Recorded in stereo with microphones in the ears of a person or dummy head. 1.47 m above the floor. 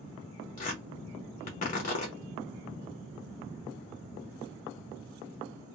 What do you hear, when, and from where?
0.6 s tearing paper: 40° left (ahead or behind), 0.9 m